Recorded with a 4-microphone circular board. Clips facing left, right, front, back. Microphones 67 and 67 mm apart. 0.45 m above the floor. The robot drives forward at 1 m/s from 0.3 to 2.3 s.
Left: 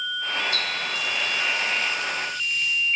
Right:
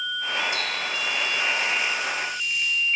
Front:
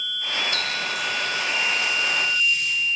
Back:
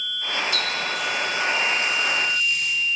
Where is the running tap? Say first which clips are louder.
Even, back 1 dB; 30° right, 0.8 m; by 2.7 s 170° right, 1.4 m.